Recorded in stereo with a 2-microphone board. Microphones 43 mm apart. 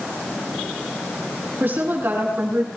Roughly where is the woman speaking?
Right.